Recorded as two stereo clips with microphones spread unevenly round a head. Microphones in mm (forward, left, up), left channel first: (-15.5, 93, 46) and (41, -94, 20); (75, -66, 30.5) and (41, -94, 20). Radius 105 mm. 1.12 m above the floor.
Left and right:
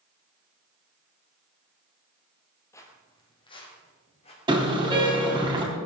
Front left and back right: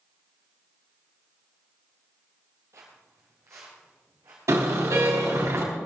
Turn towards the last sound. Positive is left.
turn(degrees=-145)